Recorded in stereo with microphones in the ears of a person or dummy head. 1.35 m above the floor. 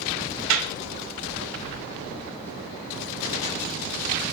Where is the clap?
85° right, 4 m.